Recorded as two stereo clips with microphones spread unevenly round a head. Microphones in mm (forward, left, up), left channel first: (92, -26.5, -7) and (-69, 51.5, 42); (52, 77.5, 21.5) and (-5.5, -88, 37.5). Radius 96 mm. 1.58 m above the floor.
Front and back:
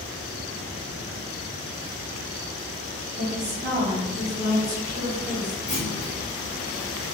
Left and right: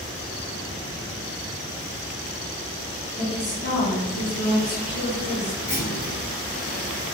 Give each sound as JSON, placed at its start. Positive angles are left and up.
{"t": 3.2, "sound": "a woman speaking", "azimuth_deg": 140, "distance_m": 0.8}
{"t": 5.7, "sound": "a clunk", "azimuth_deg": 25, "distance_m": 1.3}